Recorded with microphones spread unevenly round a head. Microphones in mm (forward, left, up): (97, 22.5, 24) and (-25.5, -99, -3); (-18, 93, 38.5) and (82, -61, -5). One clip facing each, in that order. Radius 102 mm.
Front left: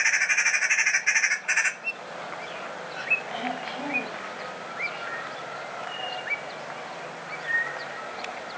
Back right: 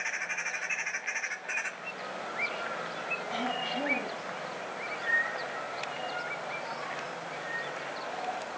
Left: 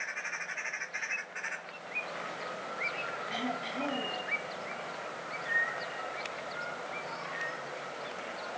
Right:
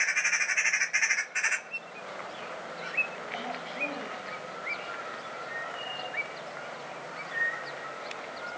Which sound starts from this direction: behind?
Throat clearing, at 3.3 s.